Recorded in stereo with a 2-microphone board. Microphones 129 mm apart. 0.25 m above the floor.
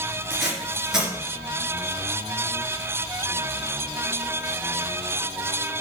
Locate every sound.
0.3 s tape being pulled: 5° right (ahead or behind), 3 m